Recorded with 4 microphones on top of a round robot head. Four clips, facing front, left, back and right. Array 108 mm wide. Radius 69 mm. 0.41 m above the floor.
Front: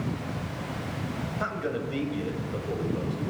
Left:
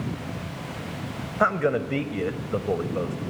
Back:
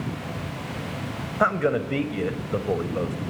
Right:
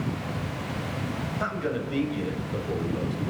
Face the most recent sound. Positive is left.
turn(degrees=135)